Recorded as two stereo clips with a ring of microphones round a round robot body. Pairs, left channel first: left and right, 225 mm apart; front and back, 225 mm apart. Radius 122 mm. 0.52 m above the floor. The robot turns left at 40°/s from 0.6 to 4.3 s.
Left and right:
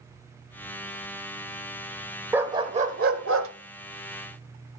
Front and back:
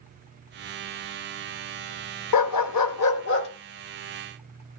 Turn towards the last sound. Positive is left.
turn(degrees=-85)